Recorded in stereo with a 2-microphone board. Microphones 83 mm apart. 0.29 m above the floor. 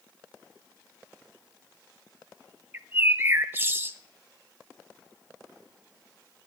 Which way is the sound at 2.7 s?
25° right (ahead or behind).